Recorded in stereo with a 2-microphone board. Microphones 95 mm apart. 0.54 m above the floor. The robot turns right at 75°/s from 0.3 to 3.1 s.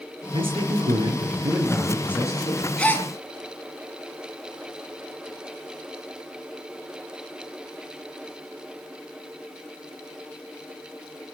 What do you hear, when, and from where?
0.3 s a man speaking: 115° right, 7.5 m; by 2.7 s 60° left, 7.5 m
2.8 s a gasp: 10° left (ahead or behind), 3 m; by 3.1 s 30° left (ahead or behind), 3 m